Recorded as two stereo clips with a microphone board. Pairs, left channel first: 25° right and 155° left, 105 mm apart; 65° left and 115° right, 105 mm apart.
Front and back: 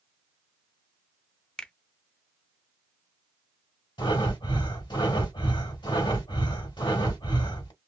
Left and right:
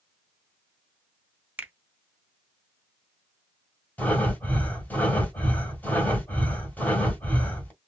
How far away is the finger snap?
About 0.5 m.